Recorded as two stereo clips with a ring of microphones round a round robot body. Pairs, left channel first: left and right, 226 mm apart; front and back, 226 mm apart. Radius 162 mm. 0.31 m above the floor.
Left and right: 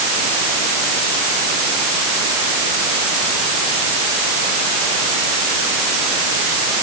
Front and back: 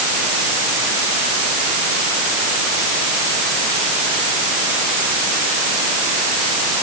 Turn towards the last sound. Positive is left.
No sound to turn to.